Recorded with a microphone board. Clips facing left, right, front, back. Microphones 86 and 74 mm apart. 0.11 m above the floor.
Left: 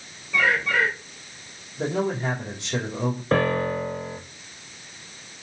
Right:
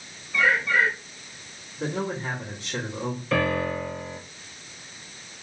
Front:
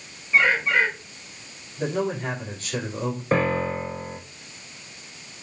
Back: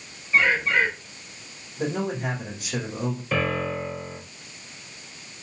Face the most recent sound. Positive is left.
turn(degrees=45)